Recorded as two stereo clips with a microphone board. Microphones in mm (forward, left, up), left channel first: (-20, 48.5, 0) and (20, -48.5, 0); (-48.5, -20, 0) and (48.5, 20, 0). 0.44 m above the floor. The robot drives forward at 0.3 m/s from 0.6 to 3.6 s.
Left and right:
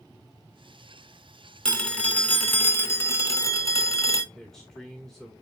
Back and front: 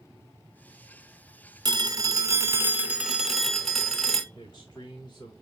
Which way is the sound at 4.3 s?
165° right.